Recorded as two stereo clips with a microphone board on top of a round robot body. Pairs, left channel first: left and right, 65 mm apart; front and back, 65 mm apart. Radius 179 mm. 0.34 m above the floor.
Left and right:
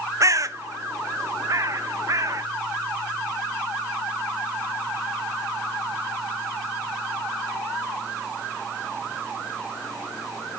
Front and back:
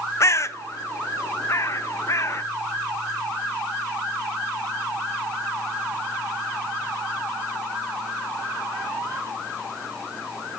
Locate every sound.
0.2 s a bird: 50° right, 0.6 m